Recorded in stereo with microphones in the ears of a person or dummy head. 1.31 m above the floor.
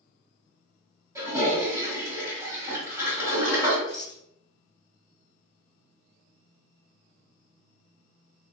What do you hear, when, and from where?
1.1 s a toilet flushing: 15° right (ahead or behind), 1.6 m
3.9 s a rattle: 25° right (ahead or behind), 1.3 m